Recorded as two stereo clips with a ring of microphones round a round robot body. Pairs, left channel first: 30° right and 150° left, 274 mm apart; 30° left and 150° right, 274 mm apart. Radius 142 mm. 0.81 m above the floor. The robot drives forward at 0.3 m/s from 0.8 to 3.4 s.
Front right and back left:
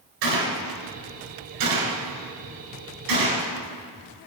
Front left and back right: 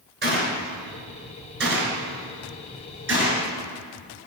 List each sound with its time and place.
0.2 s a gunshot: 155° left, 4 m; by 3.5 s 160° left, 4.5 m